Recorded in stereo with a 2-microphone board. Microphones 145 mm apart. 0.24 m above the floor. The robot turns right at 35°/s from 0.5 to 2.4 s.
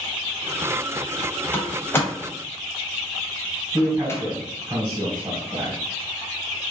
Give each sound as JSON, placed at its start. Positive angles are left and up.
{"t": 1.5, "sound": "a door slam", "side_deg": 15, "distance_m": 0.8}
{"t": 3.7, "sound": "a man speaking", "side_deg": -20, "distance_m": 1.9}